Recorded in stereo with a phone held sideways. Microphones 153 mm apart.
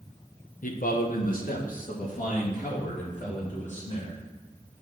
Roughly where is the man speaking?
Left.